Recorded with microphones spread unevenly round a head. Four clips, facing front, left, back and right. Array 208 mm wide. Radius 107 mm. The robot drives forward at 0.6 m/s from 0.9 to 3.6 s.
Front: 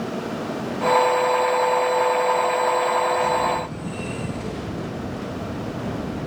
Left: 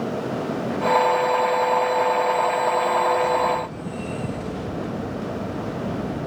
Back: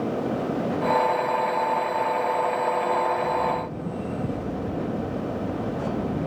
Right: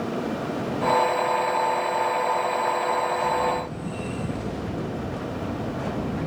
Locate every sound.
Only background noise.